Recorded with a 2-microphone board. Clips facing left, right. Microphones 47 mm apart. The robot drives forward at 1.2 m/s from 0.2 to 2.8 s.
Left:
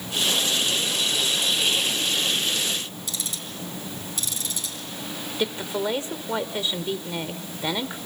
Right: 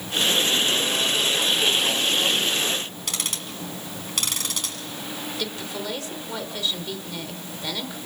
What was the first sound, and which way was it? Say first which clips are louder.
Ticking: right 3 dB; 60° right (ahead or behind).